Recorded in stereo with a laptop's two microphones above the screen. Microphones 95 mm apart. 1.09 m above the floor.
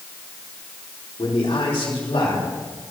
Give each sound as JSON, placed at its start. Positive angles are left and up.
{"t": 1.2, "sound": "a man speaking", "side_deg": 80, "distance_m": 3.0}